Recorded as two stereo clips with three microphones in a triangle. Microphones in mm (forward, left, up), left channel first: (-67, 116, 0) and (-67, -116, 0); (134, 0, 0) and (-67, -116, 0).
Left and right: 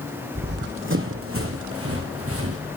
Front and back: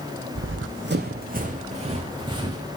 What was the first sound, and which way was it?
Running footsteps, 135° right.